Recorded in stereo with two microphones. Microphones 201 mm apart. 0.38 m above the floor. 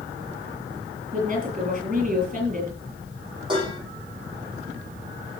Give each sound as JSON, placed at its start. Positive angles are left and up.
{"t": 1.1, "sound": "a woman speaking", "side_deg": -40, "distance_m": 7.5}
{"t": 3.5, "sound": "dishes clattering", "side_deg": -25, "distance_m": 8.5}